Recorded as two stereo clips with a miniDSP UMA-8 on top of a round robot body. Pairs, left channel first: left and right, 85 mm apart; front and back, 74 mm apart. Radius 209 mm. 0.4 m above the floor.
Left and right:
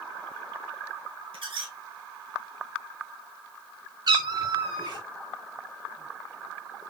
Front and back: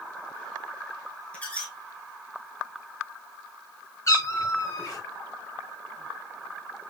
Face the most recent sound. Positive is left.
turn(degrees=-50)